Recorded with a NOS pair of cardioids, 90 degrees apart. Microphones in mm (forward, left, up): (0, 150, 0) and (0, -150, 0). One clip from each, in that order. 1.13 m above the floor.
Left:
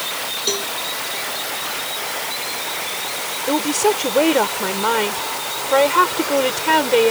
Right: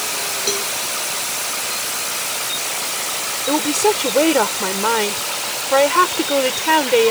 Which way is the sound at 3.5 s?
Straight ahead.